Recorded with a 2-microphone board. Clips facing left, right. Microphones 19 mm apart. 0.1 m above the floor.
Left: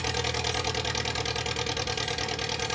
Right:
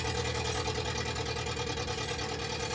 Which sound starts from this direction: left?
An engine running, at 0.0 s.